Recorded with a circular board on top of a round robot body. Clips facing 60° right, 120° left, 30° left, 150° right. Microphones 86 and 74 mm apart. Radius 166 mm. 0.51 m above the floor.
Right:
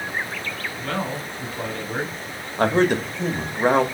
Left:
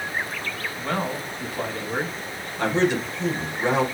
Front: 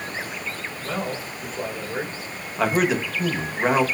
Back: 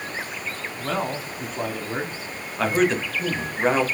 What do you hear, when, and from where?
0.8 s a man speaking: 165° right, 2 m
2.6 s a man speaking: 55° right, 1.6 m